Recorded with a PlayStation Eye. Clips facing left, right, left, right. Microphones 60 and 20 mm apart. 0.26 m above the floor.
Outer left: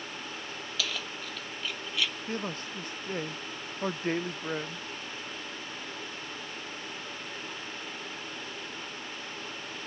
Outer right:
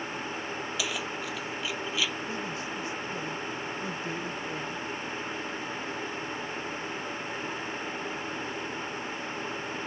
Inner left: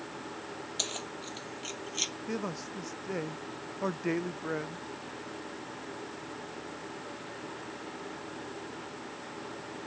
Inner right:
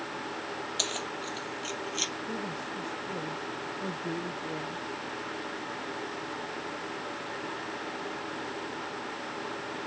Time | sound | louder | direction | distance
0.8 | keys jangling | even, inner right 3 dB | 15° right (ahead or behind) | ?
2.3 | a man speaking | outer right 1 dB, inner right 1 dB | 50° left (ahead or behind) | ?